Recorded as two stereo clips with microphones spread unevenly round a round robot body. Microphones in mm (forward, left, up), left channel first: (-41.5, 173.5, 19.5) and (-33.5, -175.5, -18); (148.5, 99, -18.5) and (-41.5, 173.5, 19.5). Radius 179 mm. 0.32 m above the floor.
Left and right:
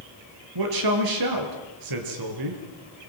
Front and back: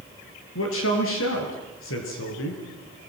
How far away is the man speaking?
About 4.5 m.